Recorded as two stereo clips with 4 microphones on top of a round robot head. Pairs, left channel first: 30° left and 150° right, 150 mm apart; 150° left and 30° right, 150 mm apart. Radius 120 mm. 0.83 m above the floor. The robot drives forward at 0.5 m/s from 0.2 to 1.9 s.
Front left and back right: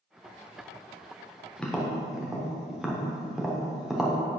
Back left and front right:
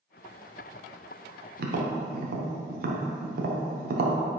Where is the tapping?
50° right, 0.9 m; by 4.2 s 60° right, 0.8 m.